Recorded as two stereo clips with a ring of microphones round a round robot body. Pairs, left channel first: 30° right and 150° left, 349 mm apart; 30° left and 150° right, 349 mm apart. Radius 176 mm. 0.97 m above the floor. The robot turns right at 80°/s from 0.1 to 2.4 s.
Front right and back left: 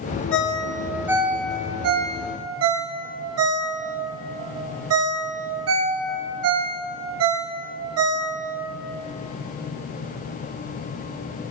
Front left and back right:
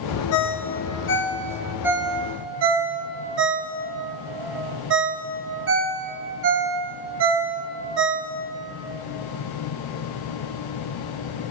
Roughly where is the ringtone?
Ahead.